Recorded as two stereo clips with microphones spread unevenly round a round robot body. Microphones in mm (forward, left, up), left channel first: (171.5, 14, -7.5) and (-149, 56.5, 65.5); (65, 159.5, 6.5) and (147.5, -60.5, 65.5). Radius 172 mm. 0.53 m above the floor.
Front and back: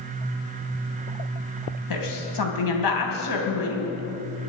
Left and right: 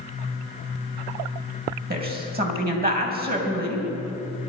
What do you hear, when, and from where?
1.9 s a woman speaking: 15° right, 3.5 m